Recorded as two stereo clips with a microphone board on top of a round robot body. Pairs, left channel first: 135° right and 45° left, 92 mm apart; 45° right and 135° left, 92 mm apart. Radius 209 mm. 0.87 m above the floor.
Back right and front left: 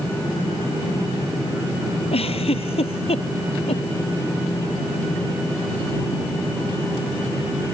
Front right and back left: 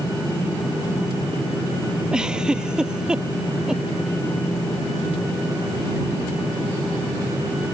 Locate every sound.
2.1 s a giggle: 145° right